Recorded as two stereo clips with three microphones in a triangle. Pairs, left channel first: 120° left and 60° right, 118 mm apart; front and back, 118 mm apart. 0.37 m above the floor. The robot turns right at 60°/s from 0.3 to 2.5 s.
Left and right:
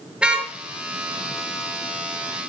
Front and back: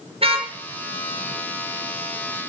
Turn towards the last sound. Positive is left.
turn(degrees=-10)